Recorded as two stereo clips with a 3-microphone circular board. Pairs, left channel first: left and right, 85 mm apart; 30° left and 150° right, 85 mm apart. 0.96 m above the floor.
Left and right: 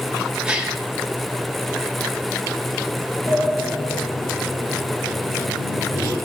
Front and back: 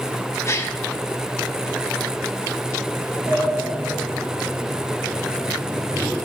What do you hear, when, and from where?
0.5 s a gasp: 15° right, 1.2 m
3.3 s a sliding door: 140° left, 9 m